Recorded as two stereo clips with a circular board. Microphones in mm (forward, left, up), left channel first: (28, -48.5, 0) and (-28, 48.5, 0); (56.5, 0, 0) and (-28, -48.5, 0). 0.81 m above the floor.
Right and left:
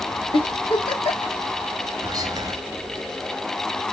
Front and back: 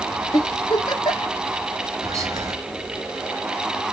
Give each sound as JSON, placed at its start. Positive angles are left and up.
{"t": 0.3, "sound": "a giggle", "azimuth_deg": -20, "distance_m": 0.8}
{"t": 2.0, "sound": "whispering", "azimuth_deg": 165, "distance_m": 0.5}